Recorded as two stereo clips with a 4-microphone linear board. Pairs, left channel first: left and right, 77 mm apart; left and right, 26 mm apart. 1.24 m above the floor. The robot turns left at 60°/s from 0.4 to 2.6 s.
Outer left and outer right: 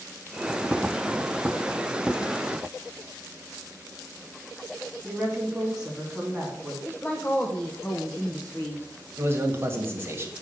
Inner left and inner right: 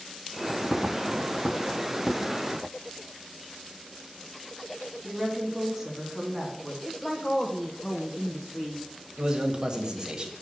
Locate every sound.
5.0 s a woman speaking: 5° right (ahead or behind), 2.5 m
6.8 s a woman speaking: 20° left (ahead or behind), 0.8 m
9.2 s a man speaking: 30° right (ahead or behind), 1.4 m